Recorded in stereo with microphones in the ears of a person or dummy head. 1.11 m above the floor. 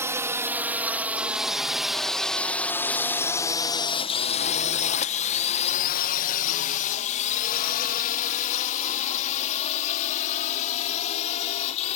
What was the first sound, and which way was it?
A drone, 10° right (ahead or behind).